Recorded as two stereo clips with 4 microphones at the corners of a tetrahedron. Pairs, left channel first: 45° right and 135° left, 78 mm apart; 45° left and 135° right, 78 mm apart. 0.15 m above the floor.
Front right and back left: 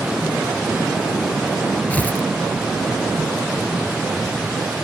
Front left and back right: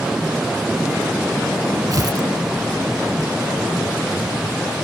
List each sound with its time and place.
1.9 s tearing paper: 110° right